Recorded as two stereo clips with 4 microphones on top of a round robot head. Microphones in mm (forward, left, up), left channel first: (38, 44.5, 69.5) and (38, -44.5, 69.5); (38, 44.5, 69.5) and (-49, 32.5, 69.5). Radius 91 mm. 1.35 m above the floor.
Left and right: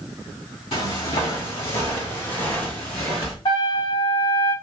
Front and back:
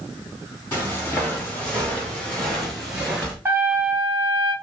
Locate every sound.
0.7 s footsteps: 70° left, 3 m; by 3.4 s 125° left, 1.5 m
3.5 s a trumpet: 120° left, 1.8 m